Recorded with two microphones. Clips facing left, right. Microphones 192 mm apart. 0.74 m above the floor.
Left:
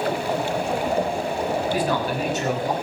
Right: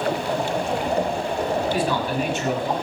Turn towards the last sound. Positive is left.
turn(degrees=40)  # may be behind; listen again after turning